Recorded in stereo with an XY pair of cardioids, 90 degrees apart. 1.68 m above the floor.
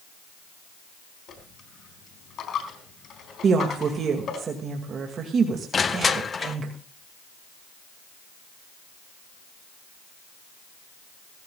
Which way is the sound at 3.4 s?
60° right.